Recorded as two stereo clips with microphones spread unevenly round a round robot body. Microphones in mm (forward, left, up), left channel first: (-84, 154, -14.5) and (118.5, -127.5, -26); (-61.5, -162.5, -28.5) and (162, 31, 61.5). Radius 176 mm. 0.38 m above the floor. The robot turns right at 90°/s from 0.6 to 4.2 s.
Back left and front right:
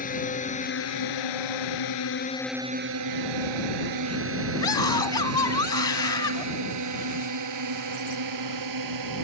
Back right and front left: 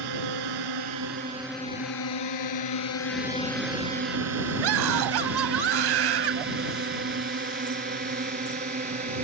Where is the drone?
60° left; by 9.2 s 25° right.